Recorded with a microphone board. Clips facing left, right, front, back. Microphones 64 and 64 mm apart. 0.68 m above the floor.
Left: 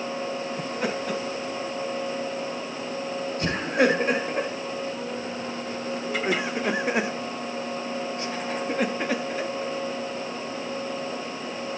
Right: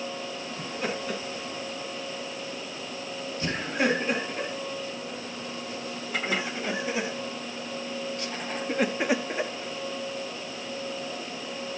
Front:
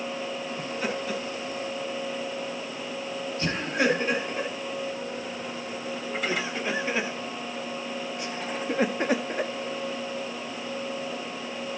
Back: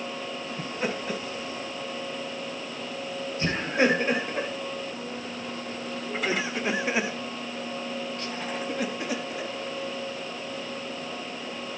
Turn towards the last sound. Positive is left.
turn(degrees=-30)